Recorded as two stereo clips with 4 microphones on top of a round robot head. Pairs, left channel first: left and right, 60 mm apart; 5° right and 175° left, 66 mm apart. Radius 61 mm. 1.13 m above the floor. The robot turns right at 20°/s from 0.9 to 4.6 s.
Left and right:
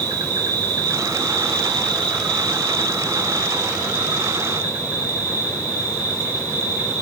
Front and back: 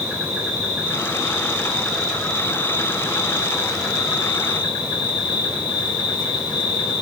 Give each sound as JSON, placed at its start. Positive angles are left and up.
{"t": 0.0, "sound": "an insect", "azimuth_deg": -110, "distance_m": 1.6}